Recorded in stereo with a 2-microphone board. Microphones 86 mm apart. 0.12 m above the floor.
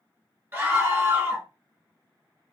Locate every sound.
0.5 s a scream: 25° right (ahead or behind), 1.4 m